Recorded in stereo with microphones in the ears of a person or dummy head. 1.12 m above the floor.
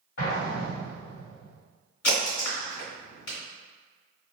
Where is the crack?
45° left (ahead or behind), 1.6 m.